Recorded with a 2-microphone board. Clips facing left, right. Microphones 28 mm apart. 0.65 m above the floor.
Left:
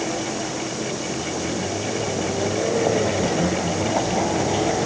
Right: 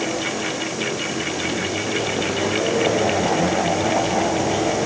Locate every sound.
Only background noise.